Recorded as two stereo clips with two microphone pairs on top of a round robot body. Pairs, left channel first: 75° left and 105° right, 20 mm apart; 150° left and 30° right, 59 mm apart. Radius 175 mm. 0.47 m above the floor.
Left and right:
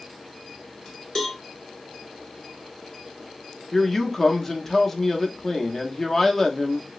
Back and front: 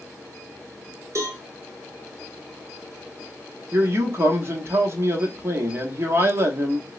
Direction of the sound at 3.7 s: 20° left.